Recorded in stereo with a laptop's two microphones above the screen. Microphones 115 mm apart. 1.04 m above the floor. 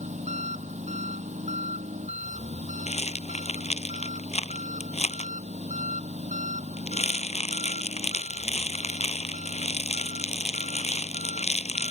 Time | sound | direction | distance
0.0 | an engine running | 90° right | ?
2.9 | a rattle | 75° left (ahead or behind) | ?